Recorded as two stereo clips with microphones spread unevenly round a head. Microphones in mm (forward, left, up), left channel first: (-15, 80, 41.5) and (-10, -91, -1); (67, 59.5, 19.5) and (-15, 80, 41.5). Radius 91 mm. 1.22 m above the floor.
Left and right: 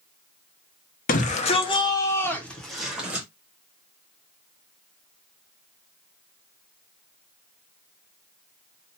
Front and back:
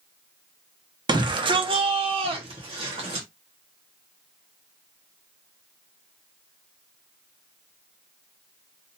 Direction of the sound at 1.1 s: 135° left.